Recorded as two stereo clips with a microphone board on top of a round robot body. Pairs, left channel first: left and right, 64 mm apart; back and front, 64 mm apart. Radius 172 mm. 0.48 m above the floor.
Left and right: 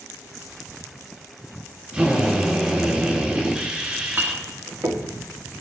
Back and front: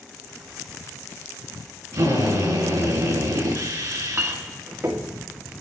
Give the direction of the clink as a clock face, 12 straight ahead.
2 o'clock.